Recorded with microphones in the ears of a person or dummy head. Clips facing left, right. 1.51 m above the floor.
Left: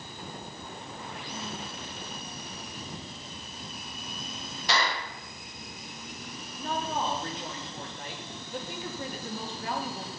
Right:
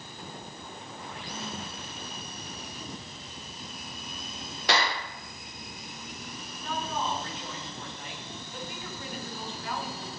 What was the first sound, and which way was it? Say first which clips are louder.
A clap: right 2 dB; 55° right (ahead or behind).